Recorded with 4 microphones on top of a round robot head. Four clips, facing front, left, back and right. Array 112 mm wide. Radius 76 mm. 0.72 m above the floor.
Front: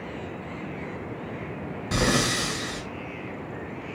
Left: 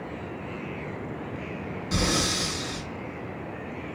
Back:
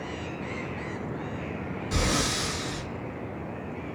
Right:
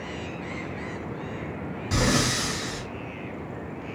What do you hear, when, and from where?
1.9 s breathing: 30° right, 1.6 m